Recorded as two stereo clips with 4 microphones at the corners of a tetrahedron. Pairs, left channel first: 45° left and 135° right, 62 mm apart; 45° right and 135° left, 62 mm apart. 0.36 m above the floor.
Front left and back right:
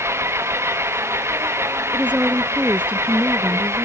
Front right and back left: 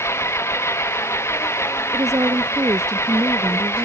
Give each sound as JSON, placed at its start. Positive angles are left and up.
{"t": 0.0, "sound": "an engine running", "azimuth_deg": -90}
{"t": 1.9, "sound": "a woman speaking", "azimuth_deg": 155}